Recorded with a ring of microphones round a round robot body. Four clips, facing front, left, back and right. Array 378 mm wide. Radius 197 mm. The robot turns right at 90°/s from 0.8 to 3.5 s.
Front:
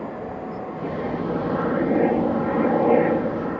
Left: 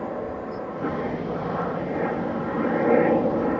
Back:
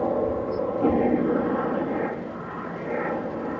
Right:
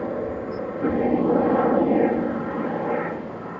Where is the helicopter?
155° right; by 3.6 s 85° left.